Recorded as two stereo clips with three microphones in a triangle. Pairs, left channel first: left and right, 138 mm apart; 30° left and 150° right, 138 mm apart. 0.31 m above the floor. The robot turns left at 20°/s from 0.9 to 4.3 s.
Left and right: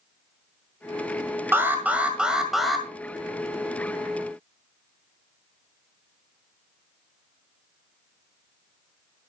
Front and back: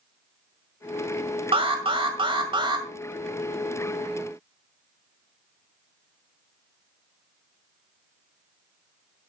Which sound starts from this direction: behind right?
An alarm, at 1.5 s.